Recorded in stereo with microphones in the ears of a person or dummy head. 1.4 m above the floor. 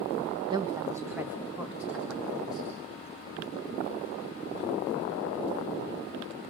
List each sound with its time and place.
0.5 s a woman speaking: 20° right (ahead or behind), 1.1 m; by 2.7 s centre (ahead or behind), 3 m